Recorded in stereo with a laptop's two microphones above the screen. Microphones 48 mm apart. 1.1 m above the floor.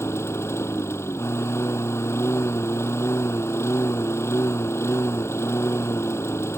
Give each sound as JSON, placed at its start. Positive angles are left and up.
{"t": 0.0, "sound": "a lawn mower", "side_deg": 75}